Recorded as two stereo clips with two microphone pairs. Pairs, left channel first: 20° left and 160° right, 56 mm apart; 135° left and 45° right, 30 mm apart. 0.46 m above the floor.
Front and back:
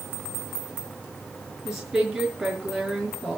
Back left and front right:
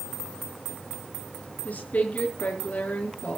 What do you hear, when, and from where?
1.6 s a woman speaking: 110° left, 5.5 m